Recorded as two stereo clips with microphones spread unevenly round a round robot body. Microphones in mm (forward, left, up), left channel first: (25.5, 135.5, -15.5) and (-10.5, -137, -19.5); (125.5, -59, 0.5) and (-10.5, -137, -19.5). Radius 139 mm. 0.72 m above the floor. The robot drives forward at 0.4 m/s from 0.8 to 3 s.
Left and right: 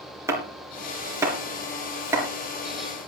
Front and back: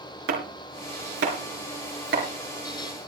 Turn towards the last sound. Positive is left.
turn(degrees=180)